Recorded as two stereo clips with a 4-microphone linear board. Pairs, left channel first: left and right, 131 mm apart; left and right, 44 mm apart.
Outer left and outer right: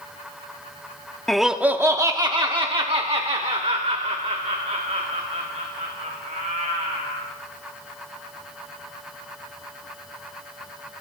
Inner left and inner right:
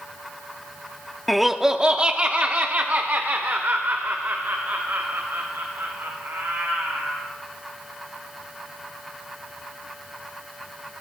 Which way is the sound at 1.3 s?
5° left (ahead or behind).